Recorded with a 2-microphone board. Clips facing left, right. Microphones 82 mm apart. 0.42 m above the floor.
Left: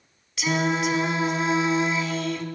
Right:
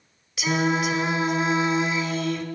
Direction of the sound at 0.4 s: 5° right (ahead or behind).